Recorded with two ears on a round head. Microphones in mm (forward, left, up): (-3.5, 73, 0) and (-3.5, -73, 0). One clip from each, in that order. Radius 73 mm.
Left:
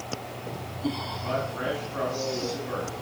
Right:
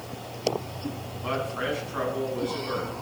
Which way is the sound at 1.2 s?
75° right (ahead or behind).